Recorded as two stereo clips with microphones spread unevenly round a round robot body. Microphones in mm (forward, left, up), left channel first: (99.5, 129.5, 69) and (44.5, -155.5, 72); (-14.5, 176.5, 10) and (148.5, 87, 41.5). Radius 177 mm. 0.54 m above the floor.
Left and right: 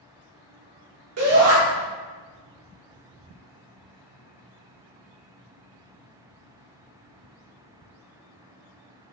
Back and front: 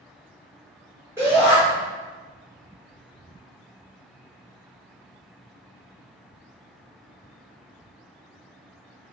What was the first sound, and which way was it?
A shout, 110° right.